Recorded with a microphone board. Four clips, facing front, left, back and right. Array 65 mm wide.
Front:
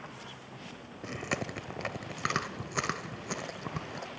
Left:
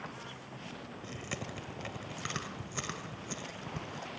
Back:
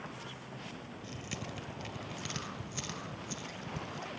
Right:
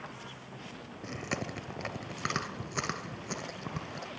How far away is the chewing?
About 2.0 m.